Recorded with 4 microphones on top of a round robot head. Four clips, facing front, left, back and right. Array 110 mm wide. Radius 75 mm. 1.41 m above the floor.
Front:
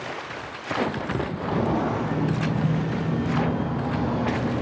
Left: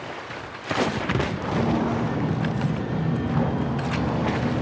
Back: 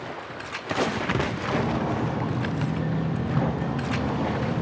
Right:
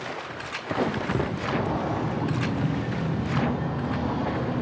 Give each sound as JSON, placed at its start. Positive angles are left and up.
{"t": 1.4, "sound": "footsteps", "azimuth_deg": 10, "distance_m": 3.5}